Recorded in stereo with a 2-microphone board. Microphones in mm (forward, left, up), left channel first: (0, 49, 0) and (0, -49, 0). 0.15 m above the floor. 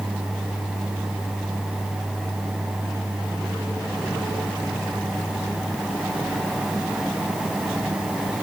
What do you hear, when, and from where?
Only background noise.